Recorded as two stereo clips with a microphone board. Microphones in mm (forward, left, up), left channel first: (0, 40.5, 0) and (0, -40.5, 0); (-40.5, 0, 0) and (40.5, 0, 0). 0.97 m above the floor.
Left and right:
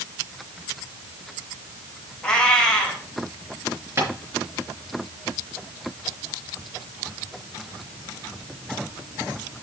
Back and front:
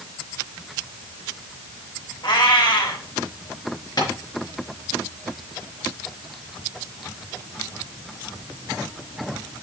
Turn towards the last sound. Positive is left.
turn(degrees=-145)